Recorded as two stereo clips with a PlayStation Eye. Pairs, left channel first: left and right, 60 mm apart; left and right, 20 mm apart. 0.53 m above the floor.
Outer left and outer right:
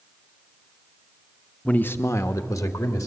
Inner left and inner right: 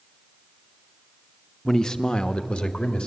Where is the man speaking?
20° left (ahead or behind), 0.9 m; by 3.1 s 70° left (ahead or behind), 2 m.